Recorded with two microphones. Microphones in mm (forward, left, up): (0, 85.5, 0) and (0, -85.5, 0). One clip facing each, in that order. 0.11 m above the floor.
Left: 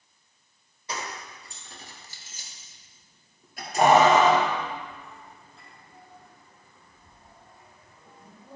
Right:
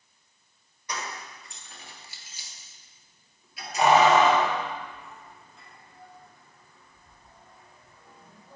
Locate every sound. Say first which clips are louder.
0.9 s keys jangling: left 1 dB; 25° left (ahead or behind), 1.6 m